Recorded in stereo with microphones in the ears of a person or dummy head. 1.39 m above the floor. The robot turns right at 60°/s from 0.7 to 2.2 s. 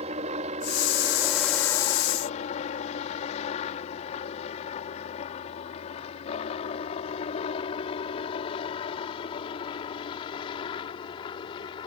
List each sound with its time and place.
0.0 s a helicopter: 35° right (ahead or behind); by 11.9 s 30° left (ahead or behind)